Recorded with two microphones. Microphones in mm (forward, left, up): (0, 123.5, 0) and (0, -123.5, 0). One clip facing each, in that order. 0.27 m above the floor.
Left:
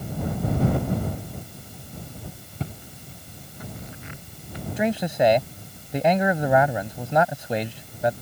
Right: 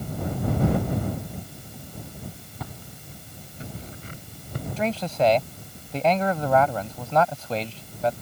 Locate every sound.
2.6 s footsteps: 30° left (ahead or behind); by 4.7 s 50° right (ahead or behind)
4.8 s a man speaking: 15° left (ahead or behind)